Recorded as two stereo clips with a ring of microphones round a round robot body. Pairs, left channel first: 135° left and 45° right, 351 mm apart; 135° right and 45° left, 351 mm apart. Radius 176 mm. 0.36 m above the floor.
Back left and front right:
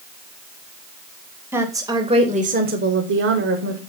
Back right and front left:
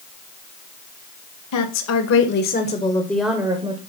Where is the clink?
I don't hear a clink.